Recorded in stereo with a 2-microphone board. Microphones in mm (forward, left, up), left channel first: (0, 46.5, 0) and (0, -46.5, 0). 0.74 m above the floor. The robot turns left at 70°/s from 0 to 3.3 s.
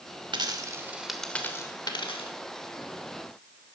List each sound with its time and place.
0.3 s a dropped coin: 55° right (ahead or behind), 1.0 m; by 2.3 s 80° left, 1.0 m